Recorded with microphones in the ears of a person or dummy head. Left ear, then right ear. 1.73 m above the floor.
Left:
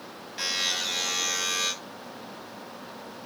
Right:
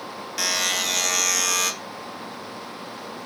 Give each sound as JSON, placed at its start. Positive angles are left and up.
{"t": 0.4, "sound": "a buzzer", "side_deg": -30, "distance_m": 2.5}